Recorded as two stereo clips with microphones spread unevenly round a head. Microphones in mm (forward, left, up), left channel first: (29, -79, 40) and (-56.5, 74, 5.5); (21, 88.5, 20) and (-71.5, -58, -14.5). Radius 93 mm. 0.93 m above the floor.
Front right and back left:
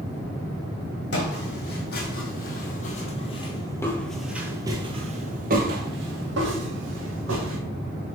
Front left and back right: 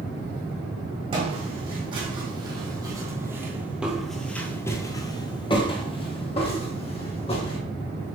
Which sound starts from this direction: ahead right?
Footsteps, at 1.1 s.